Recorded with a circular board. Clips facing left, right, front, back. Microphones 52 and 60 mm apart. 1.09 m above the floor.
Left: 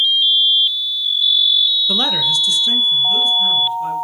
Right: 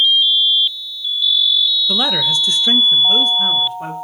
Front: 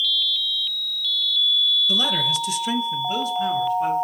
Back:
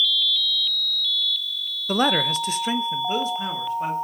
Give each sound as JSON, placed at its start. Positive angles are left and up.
{"t": 1.9, "sound": "a man speaking", "azimuth_deg": 170, "distance_m": 0.5}